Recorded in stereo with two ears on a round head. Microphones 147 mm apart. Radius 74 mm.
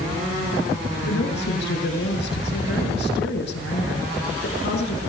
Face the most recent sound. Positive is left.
turn(degrees=75)  # may be behind; listen again after turning